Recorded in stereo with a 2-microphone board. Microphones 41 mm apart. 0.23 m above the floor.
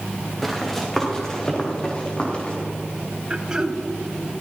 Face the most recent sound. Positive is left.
turn(degrees=-20)  # may be behind; listen again after turning